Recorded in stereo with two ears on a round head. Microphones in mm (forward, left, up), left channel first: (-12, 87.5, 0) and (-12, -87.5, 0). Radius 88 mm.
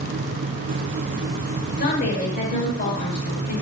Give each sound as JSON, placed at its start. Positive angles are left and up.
{"t": 1.8, "sound": "a woman speaking", "side_deg": 50, "distance_m": 4.5}